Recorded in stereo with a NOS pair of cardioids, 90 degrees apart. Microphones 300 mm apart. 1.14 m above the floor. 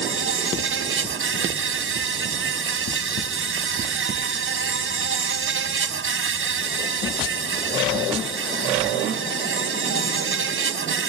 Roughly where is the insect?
Ahead right.